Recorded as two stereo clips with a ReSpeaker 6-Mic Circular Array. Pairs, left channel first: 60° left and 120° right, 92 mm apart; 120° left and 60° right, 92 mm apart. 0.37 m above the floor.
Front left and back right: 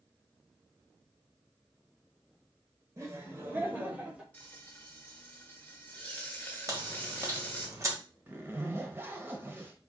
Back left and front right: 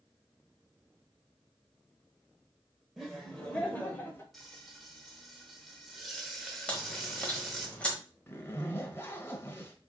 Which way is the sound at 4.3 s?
25° left.